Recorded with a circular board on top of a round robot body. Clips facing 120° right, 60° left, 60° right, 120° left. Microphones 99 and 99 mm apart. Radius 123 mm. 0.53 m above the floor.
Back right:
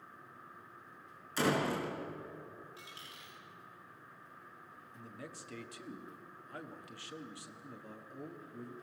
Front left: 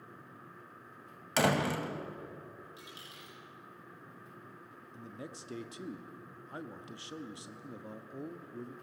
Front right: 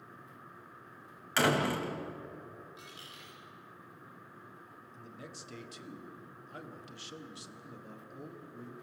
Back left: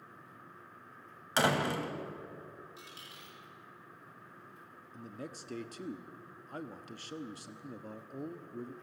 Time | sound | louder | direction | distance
1.4 | a door slam | front left 3 dB, front right 1 dB | 50° left | 2.5 m
2.8 | a dropped coin | front left 2 dB, front right 1 dB | 125° left | 9.5 m
4.9 | a man speaking | front left 3 dB, back left 5 dB | 115° left | 1.3 m